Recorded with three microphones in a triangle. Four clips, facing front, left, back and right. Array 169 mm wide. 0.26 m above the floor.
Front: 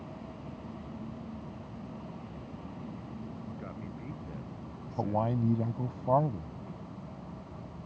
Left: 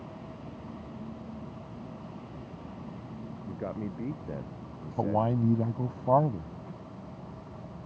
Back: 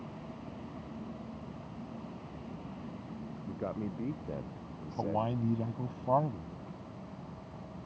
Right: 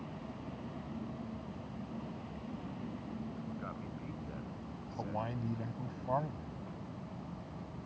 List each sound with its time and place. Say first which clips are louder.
3.5 s a man speaking: left 7 dB, back 5 dB; 130° left
5.0 s a man speaking: left 12 dB, front 2 dB; 85° left